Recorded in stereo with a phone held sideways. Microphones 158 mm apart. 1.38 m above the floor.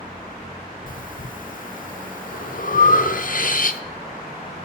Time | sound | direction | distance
0.9 | breathing | 60° left (ahead or behind) | 0.6 m